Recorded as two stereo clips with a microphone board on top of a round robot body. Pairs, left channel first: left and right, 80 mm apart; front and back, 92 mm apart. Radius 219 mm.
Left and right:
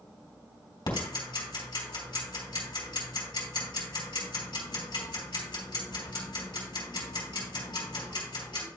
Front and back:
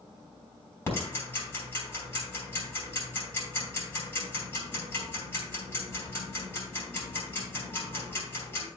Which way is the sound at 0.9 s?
65° left.